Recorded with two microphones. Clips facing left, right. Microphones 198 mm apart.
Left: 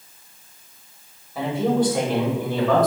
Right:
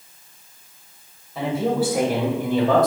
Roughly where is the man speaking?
Centre.